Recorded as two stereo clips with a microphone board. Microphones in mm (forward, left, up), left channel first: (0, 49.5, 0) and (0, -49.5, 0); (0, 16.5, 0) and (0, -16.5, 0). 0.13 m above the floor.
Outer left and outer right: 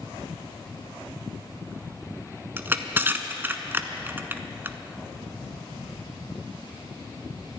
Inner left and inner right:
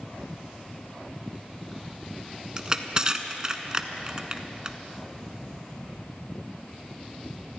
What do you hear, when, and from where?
2.6 s crushing: 25° right (ahead or behind), 0.9 m